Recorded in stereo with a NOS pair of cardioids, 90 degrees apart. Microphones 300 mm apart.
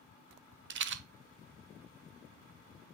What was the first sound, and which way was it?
A rattle, 40° right.